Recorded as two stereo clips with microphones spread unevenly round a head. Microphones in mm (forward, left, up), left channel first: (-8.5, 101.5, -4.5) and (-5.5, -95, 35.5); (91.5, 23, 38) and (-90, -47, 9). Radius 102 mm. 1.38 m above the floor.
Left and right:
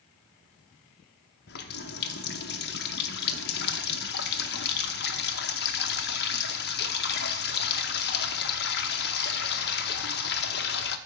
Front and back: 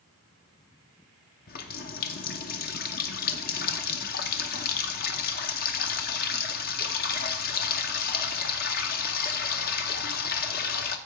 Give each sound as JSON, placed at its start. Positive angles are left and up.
{"t": 1.5, "sound": "a running tap", "azimuth_deg": 50, "distance_m": 0.7}